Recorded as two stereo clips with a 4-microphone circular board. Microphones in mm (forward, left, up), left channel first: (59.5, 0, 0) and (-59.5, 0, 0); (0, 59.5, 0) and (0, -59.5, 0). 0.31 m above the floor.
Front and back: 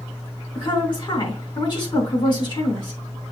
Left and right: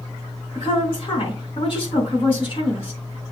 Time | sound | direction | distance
0.6 | a woman speaking | 50° left | 3.5 m